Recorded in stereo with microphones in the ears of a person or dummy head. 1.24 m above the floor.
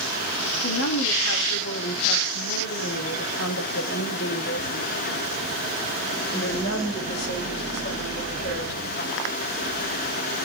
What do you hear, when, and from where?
0.6 s a woman speaking: 70° left (ahead or behind), 3 m; by 9.4 s 35° left (ahead or behind), 5.5 m